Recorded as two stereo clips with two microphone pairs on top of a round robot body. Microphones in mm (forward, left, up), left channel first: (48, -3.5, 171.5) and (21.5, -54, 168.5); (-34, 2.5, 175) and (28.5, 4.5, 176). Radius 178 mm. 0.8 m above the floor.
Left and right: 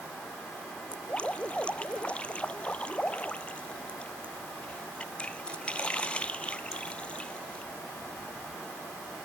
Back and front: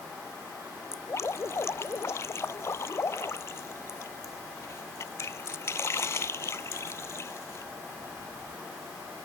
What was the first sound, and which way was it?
Dripping, 135° left.